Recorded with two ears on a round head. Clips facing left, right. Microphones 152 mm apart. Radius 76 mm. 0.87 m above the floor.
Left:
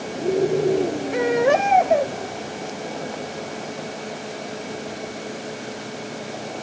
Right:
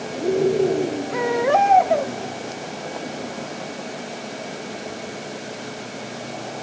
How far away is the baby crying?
About 1.0 m.